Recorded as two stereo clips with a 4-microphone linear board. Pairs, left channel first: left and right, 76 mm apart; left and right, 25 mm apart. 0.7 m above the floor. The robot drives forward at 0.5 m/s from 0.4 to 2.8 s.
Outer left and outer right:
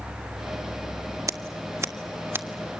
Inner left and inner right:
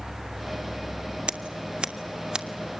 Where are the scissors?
50° right (ahead or behind), 1.0 m; by 2.8 s 30° right (ahead or behind), 1.5 m.